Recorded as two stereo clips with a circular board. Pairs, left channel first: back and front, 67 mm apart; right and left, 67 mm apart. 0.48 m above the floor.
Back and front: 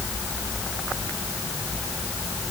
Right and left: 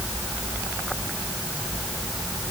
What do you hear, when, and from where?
Only background noise.